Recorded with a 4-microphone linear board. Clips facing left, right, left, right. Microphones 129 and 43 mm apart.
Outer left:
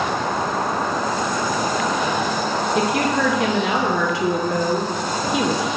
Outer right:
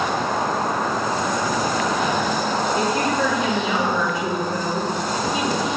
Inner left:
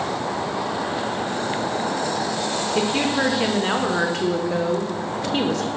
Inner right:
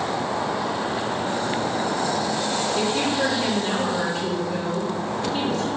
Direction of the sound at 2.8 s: 80° left.